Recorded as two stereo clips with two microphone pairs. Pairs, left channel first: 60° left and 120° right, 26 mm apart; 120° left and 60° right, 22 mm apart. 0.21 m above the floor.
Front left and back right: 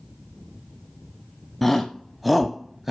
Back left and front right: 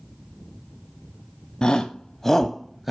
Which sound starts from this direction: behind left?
A shout, at 1.6 s.